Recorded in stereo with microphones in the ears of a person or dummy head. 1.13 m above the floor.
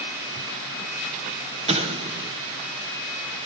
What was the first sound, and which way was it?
An explosion, 30° right (ahead or behind).